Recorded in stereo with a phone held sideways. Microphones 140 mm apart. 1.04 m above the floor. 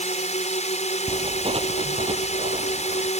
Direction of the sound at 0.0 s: 50° left (ahead or behind).